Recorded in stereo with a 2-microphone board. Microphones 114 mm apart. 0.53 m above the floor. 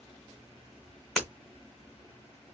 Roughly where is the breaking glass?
Centre.